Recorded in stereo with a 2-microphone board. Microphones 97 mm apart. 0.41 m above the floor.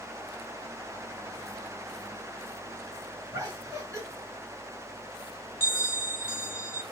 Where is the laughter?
30° right (ahead or behind), 1.8 m.